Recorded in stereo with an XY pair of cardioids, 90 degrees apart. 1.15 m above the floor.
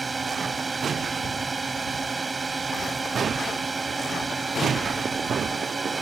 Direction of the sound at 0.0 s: 25° right.